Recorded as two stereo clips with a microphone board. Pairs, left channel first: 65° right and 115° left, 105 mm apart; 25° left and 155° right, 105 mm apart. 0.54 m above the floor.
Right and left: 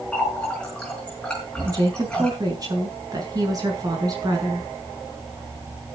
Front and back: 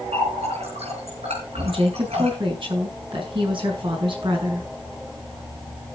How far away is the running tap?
About 6 m.